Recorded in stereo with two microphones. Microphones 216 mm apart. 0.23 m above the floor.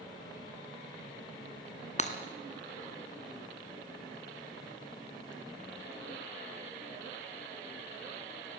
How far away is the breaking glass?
About 1.7 m.